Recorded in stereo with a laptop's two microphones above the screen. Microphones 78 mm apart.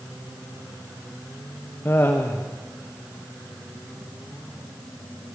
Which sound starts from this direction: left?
Laughter, at 1.9 s.